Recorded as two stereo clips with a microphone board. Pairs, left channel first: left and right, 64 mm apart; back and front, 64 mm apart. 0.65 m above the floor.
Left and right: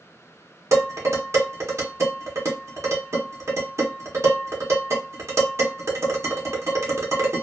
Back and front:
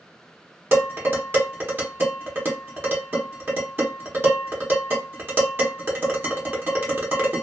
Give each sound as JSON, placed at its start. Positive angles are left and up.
{"t": 0.7, "sound": "dishes clattering", "azimuth_deg": -50, "distance_m": 1.2}